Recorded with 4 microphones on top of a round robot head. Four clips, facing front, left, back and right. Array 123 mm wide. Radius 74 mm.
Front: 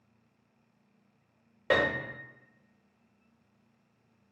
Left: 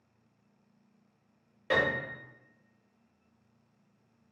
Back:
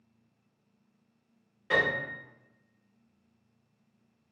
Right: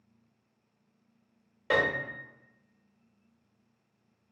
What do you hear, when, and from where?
1.7 s a piano: 20° right, 0.8 m